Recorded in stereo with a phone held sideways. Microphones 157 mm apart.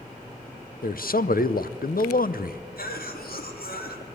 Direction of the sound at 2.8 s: 85° left.